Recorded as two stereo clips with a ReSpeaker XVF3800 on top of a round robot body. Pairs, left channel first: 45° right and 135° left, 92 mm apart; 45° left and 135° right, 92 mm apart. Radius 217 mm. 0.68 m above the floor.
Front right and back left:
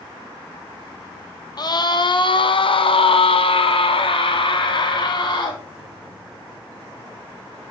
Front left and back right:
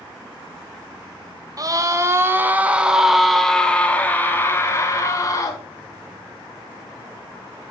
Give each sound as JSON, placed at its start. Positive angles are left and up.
{"t": 1.6, "sound": "a scream", "azimuth_deg": -85, "distance_m": 1.7}